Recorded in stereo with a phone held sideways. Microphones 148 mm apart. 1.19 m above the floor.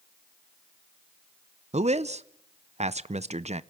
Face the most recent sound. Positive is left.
turn(degrees=-50)  # may be behind; listen again after turning